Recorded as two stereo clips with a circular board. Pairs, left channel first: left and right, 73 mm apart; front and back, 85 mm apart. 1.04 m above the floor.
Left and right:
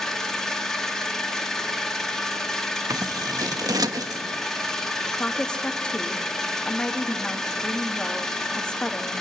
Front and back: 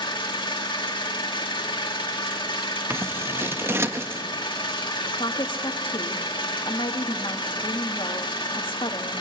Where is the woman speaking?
15° left, 1.5 m.